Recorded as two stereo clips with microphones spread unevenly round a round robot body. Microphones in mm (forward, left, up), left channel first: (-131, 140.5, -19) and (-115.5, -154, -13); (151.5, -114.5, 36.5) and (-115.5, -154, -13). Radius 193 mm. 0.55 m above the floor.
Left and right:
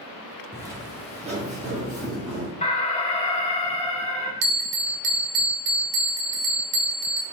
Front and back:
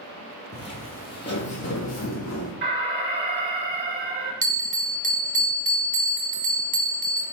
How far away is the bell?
About 0.8 m.